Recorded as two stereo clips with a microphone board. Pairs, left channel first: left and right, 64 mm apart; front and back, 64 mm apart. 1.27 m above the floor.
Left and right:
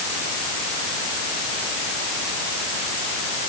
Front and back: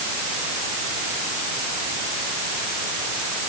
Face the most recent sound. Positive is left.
No sound to turn to.